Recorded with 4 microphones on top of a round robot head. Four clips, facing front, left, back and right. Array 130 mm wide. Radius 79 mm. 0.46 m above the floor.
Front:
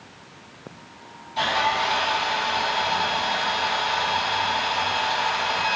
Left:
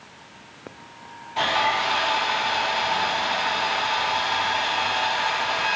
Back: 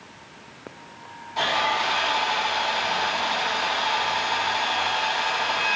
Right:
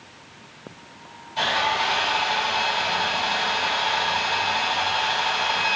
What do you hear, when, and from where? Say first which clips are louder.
1.4 s sawing: left 1 dB, front 1 dB; 125° left, 1.7 m